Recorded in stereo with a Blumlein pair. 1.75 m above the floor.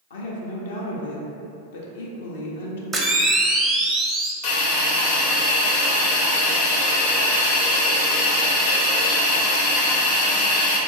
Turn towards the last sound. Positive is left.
turn(degrees=50)